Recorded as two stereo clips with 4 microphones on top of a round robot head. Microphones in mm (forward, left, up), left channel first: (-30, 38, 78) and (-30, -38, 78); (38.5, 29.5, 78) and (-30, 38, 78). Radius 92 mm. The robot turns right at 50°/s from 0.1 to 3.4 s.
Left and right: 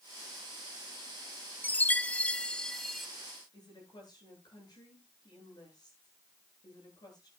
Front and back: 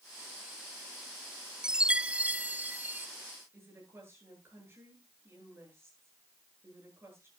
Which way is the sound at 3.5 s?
120° left.